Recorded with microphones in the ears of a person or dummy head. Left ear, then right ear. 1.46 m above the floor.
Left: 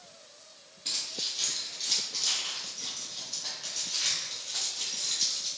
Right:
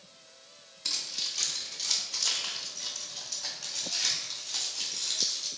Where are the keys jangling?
55° right (ahead or behind), 1.6 m; by 5.5 s 80° right, 4 m.